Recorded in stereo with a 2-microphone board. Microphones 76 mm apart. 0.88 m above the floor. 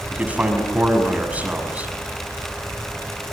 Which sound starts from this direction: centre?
A man speaking, at 0.1 s.